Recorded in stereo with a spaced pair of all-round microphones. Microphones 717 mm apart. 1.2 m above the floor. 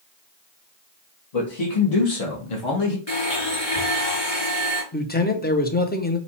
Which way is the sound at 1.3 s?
60° left (ahead or behind).